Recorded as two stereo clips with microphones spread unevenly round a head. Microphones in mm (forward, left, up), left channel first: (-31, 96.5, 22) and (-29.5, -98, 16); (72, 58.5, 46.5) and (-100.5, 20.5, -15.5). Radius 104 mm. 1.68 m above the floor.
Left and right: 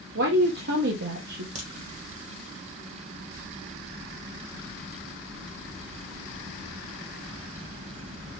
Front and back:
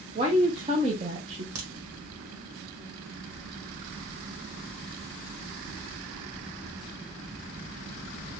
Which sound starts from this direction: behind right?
A crack, at 1.6 s.